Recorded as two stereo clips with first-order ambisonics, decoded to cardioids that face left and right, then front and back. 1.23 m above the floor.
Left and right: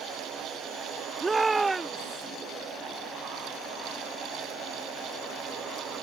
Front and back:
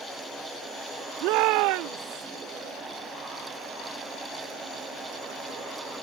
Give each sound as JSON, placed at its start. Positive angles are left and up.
{"t": 1.2, "sound": "a shout", "azimuth_deg": -170}